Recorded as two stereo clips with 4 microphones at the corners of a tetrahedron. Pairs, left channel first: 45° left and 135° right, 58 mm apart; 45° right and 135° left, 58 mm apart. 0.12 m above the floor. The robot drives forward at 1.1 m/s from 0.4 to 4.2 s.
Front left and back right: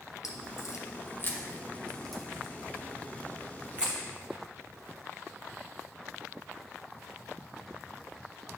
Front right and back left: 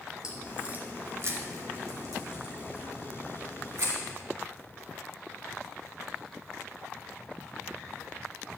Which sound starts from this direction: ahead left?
A crack, at 0.2 s.